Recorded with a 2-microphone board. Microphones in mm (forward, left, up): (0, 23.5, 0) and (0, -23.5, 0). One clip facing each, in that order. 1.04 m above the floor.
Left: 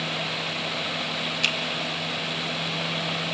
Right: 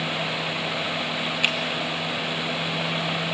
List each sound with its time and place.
1.4 s a finger snap: 20° right (ahead or behind), 1.7 m